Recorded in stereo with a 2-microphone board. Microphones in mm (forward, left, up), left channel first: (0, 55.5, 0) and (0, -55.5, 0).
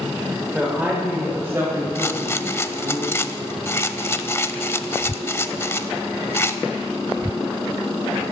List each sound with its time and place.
0.5 s a woman speaking: 10° right (ahead or behind), 1.8 m; by 3.0 s 30° right (ahead or behind), 3.5 m
1.9 s a rattle: 25° left (ahead or behind), 0.5 m